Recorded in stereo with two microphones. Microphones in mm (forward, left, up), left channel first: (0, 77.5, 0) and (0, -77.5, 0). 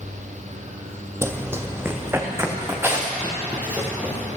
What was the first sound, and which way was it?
Running footsteps, 15° right (ahead or behind).